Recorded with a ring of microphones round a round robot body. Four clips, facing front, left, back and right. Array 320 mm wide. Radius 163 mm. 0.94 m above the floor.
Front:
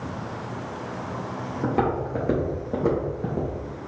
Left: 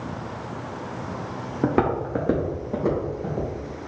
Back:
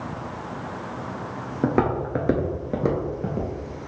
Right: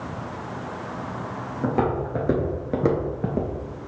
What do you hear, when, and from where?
1.6 s footsteps: 130° left, 1.1 m; by 3.5 s 90° right, 1.2 m